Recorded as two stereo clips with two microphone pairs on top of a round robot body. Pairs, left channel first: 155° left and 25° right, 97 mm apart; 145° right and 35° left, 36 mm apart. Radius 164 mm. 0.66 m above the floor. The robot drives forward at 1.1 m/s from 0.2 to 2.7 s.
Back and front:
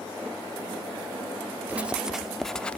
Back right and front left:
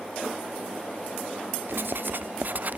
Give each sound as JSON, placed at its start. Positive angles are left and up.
{"t": 1.7, "sound": "writing", "azimuth_deg": 50}